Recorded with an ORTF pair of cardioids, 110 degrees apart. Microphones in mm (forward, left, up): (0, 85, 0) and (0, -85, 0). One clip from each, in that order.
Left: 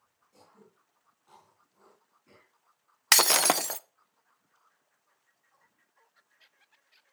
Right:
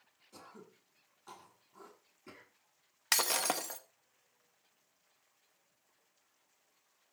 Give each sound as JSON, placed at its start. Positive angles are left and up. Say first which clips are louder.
{"t": 0.3, "sound": "throat clearing", "louder": "right 5 dB", "azimuth_deg": -65, "distance_m": 7.5}
{"t": 3.1, "sound": "breaking glass", "louder": "left 9 dB", "azimuth_deg": 50, "distance_m": 0.7}